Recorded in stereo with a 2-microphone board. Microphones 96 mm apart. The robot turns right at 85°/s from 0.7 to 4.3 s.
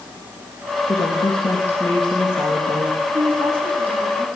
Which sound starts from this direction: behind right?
A woman speaking, at 3.1 s.